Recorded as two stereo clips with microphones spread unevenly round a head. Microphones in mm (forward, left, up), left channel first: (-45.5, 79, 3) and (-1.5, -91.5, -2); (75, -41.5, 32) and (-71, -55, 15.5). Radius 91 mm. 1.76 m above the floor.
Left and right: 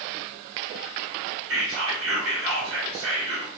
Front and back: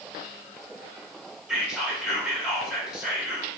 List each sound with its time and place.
1.5 s whispering: 85° right, 0.9 m